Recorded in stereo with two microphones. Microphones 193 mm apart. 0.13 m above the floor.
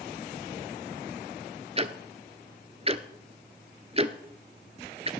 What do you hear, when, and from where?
1.8 s ticking: 35° right (ahead or behind), 0.6 m